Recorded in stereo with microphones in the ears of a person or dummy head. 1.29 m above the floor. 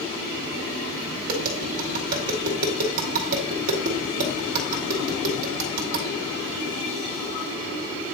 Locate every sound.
1.3 s tapping: 45° right (ahead or behind), 2 m